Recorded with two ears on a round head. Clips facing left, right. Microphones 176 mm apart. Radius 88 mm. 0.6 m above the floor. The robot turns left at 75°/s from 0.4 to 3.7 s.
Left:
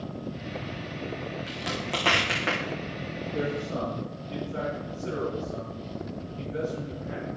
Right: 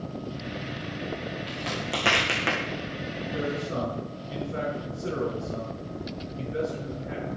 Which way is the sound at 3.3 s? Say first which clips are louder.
Even; 80° right.